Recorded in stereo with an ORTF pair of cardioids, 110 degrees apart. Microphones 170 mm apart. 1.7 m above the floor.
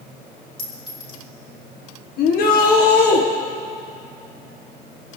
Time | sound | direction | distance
0.6 | a clink | 30° left | 4.5 m
2.2 | a shout | 65° left | 1.4 m